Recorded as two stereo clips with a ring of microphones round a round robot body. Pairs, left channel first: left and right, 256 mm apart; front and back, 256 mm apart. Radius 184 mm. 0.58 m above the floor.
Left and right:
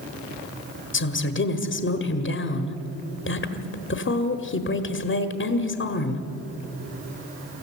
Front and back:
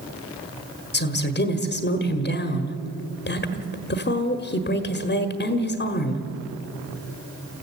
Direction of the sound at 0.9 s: 50° left.